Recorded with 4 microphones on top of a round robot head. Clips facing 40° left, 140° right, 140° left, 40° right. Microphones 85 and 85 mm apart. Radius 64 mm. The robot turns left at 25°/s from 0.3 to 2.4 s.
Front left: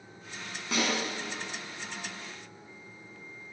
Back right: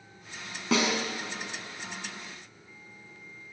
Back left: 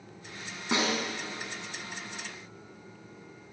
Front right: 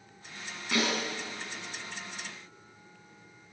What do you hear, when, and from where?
0.7 s a snare drum: 155° right, 5.5 m; by 1.0 s 160° right, 5.5 m